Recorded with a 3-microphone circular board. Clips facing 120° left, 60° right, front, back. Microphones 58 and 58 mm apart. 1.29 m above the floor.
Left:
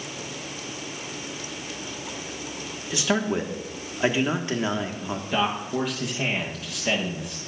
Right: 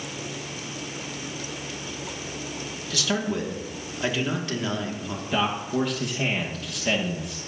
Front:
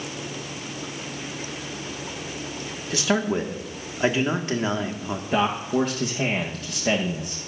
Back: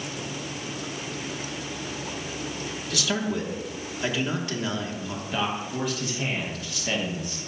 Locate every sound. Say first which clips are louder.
2.9 s a man speaking: left 3 dB, front 5 dB; 55° left, 1.6 m
5.3 s a man speaking: right 1 dB, front 7 dB; 30° left, 1.2 m